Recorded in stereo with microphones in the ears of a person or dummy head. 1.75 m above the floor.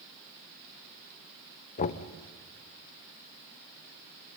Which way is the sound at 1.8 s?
40° left (ahead or behind).